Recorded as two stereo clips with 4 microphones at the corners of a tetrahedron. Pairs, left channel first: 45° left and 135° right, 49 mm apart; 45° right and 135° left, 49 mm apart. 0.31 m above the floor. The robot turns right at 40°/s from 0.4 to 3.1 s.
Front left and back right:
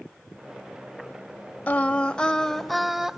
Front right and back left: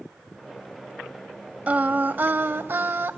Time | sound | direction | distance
1.7 | singing | 90° left | 0.5 m